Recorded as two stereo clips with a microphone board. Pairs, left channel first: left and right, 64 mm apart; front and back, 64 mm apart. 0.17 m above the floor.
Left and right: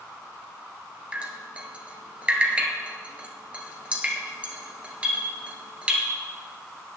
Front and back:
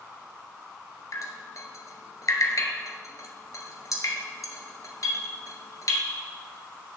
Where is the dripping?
20° right, 1.5 m.